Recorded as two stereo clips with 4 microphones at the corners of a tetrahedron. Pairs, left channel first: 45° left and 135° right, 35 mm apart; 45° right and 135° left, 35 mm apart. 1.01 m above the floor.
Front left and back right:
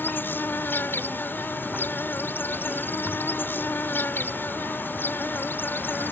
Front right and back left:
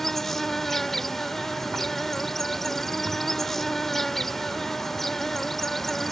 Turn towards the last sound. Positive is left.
turn(degrees=40)